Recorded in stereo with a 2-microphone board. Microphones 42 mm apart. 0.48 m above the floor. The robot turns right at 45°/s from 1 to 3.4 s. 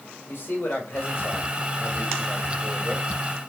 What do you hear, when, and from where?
0.3 s a man speaking: 110° left, 2 m; by 3.0 s 155° right, 2 m